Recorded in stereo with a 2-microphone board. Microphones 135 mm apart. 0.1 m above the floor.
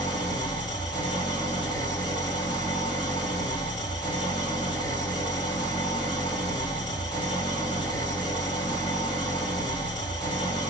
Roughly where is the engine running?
Left.